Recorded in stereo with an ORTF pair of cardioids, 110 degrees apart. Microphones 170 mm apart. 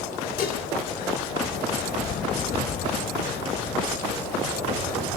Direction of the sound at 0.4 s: 65° left.